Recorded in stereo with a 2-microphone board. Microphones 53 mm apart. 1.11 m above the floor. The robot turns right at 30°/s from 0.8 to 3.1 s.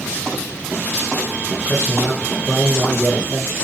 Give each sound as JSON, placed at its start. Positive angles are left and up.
{"t": 1.7, "sound": "a man speaking", "azimuth_deg": 150, "distance_m": 0.7}